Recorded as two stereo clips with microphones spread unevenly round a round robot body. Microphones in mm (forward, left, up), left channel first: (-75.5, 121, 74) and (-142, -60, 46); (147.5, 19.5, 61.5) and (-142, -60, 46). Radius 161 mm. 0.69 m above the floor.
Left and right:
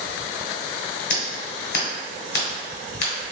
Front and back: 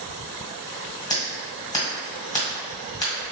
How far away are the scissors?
About 1.8 m.